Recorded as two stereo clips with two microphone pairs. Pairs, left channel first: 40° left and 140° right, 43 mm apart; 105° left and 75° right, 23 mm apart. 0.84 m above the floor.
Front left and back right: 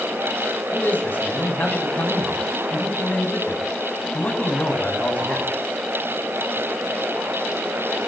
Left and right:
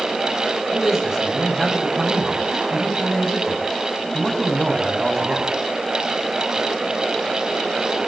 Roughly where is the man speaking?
Ahead.